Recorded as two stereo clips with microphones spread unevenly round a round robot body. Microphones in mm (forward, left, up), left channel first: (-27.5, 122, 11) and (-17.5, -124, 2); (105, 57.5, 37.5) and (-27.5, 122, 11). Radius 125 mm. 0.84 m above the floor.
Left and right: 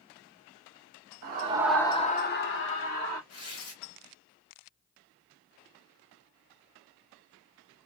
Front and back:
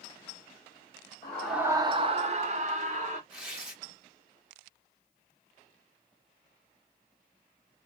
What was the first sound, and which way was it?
A scream, 105° right.